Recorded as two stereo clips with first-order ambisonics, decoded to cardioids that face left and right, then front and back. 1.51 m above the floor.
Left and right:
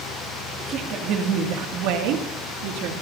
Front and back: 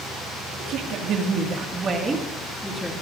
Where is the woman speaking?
145° right, 3 m; by 2.9 s 85° right, 3 m.